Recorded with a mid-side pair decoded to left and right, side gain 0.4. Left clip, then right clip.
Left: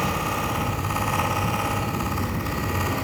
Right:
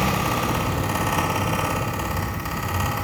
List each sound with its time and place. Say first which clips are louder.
0.0 s a fan: right 2 dB; 60° right, 7.5 m